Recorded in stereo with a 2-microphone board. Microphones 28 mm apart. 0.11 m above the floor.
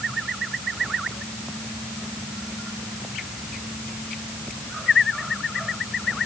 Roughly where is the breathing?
No breathing in this recording.